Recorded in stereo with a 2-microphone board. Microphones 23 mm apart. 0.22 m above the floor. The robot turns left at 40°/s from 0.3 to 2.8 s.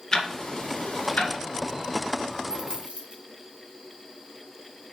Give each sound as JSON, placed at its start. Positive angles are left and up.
{"t": 0.1, "sound": "ticking", "side_deg": 25, "distance_m": 1.7}
{"t": 2.5, "sound": "a dropped coin", "side_deg": -40, "distance_m": 2.5}